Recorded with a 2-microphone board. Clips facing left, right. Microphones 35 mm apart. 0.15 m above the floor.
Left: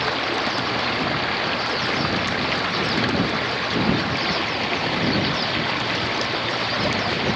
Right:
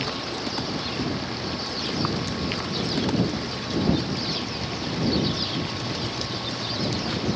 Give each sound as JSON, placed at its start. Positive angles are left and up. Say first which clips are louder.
{"t": 0.0, "sound": "running water", "louder": "left 7 dB", "side_deg": 45}